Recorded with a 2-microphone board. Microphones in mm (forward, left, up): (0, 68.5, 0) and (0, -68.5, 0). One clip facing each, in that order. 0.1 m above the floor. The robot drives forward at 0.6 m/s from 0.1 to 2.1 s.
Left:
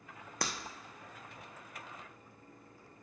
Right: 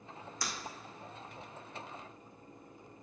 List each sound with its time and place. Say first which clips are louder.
0.4 s breaking glass: left 4 dB; 65° left (ahead or behind), 1.1 m; by 0.5 s 70° left (ahead or behind), 1.0 m